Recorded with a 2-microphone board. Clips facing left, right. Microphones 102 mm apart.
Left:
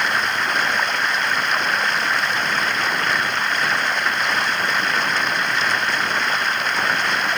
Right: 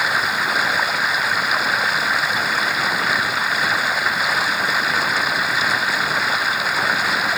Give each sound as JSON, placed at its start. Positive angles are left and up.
{"t": 0.0, "sound": "running water", "side_deg": -5}